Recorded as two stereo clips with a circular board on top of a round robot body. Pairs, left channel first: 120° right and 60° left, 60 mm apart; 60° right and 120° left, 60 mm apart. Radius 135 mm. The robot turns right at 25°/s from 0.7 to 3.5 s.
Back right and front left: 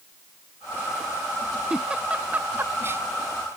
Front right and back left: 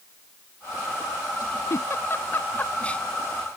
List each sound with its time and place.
1.7 s a giggle: 20° right; by 3.0 s 15° left